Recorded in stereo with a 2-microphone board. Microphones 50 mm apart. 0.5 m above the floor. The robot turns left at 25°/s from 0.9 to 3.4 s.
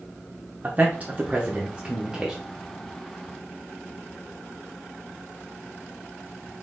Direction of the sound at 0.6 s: 30° right (ahead or behind).